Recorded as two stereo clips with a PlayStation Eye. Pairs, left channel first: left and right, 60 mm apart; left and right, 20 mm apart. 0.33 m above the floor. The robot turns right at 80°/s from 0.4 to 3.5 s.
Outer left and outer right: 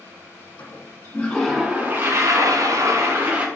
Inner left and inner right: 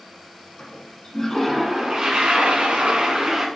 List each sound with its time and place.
0.6 s a toilet flushing: 110° left, 2 m; by 3.5 s 20° right, 2 m